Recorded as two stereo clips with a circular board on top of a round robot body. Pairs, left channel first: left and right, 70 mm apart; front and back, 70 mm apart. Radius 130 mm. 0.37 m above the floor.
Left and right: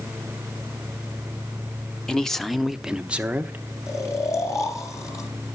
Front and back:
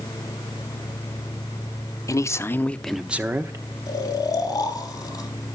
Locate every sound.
2.1 s a man speaking: 10° left, 1.5 m; by 3.6 s 150° right, 1.5 m
3.9 s snoring: 40° left, 3 m